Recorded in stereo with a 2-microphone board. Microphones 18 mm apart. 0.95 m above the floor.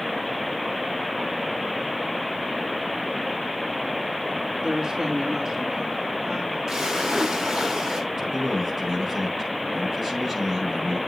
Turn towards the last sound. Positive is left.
turn(degrees=-10)  # may be behind; listen again after turning